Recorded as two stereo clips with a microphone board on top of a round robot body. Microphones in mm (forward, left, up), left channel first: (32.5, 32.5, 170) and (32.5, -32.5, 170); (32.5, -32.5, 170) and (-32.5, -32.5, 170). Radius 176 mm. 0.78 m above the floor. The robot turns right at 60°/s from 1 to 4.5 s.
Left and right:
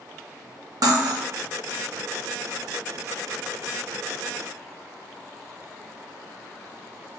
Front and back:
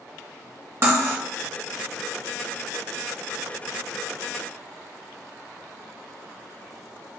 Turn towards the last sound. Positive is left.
turn(degrees=85)